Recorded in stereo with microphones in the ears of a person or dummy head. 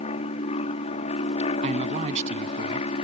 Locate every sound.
0.0 s an aircraft: 40° left (ahead or behind)
1.6 s a man speaking: 40° right (ahead or behind)